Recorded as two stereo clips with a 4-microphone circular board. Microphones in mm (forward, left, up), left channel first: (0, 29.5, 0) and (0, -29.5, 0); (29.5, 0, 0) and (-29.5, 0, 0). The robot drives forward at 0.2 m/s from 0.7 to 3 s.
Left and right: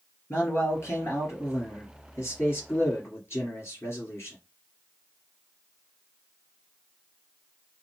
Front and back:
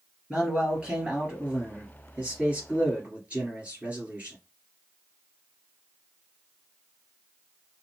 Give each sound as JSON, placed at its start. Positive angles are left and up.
{"t": 0.3, "sound": "a man speaking", "azimuth_deg": 110, "distance_m": 3.0}